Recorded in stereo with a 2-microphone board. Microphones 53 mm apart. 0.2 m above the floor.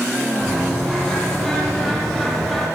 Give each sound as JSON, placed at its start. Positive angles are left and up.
{"t": 0.4, "sound": "a bird", "side_deg": 0, "distance_m": 7.5}